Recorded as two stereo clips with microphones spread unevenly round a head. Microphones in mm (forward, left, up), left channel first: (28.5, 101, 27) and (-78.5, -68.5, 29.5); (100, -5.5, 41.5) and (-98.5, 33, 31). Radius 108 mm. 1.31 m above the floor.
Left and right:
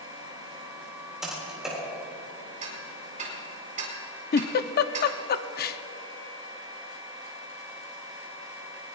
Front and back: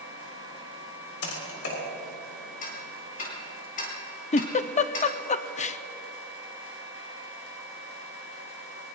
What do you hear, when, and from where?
1.2 s typing on a keyboard: 35° right, 3.5 m
2.6 s ticking: 65° right, 3.5 m
4.3 s a giggle: 40° left, 0.6 m